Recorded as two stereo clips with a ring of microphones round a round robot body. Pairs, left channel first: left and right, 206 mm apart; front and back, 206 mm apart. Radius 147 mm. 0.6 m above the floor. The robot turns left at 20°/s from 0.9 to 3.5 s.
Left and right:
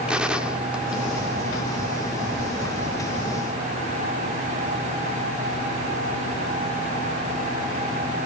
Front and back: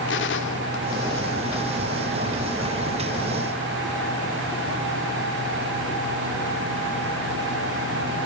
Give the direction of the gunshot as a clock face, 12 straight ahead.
12 o'clock.